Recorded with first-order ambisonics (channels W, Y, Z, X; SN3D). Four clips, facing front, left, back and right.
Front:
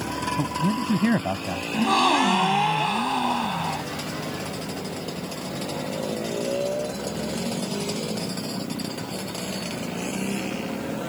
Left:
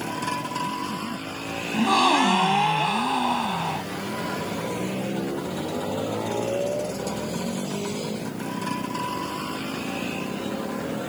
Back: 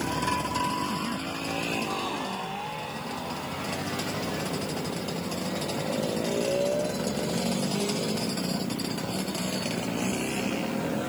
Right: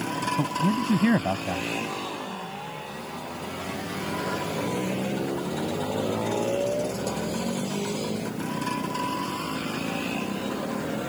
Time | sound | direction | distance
0.4 | a man speaking | 50° right | ?
1.7 | a gasp | 50° left | ?